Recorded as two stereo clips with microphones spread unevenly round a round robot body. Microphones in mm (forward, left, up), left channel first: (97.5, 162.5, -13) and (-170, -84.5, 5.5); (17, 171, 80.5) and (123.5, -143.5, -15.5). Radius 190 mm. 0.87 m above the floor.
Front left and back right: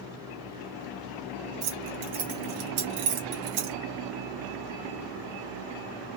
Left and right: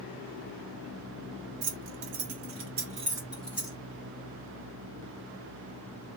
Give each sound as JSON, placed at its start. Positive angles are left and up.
{"t": 1.6, "sound": "keys jangling", "azimuth_deg": -90, "distance_m": 1.8}